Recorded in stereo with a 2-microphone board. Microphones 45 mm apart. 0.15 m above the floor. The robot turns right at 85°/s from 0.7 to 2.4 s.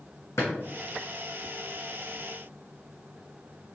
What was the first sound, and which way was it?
A drawer, 80° left.